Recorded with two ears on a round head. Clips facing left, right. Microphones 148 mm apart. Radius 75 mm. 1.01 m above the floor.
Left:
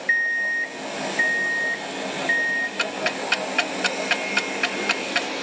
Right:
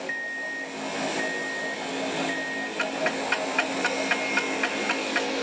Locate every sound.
0.1 s an alarm clock: 65° left (ahead or behind), 0.5 m
2.8 s ticking: 40° left (ahead or behind), 0.6 m